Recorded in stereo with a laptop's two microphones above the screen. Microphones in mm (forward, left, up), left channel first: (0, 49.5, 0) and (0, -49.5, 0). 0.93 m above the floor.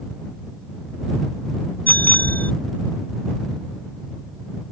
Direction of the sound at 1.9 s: 15° left (ahead or behind).